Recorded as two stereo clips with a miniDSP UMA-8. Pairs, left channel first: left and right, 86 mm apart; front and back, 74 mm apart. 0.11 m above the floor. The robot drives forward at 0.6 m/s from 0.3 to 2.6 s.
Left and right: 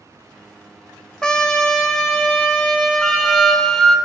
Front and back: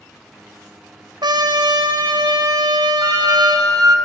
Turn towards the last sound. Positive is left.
turn(degrees=175)